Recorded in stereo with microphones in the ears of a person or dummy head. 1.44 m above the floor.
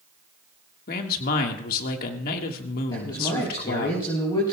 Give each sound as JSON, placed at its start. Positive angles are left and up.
{"t": 0.9, "sound": "a man speaking", "side_deg": 50, "distance_m": 1.6}
{"t": 2.9, "sound": "a man speaking", "side_deg": 20, "distance_m": 4.0}